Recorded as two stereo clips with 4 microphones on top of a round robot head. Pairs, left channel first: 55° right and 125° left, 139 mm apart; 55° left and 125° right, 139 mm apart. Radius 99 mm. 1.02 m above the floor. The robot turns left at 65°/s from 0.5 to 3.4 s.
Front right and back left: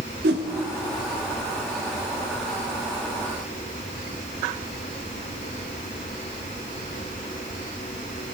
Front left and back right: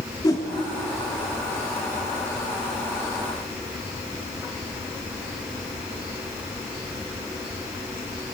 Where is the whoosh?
120° left, 0.8 m.